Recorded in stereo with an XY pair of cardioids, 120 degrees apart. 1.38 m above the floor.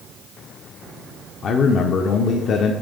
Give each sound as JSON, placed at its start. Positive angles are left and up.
{"t": 1.4, "sound": "a man speaking", "azimuth_deg": 55, "distance_m": 0.6}